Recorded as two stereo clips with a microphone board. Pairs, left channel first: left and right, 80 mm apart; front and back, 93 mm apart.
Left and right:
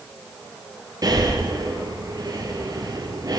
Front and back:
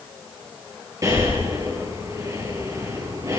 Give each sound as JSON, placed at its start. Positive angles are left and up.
{"t": 1.0, "sound": "breathing", "azimuth_deg": -130, "distance_m": 6.0}